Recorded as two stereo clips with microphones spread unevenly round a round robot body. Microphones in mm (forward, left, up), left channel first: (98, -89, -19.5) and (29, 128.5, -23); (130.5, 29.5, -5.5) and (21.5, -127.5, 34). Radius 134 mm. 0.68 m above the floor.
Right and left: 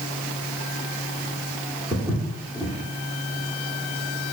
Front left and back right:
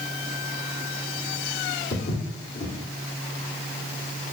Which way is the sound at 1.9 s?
30° left.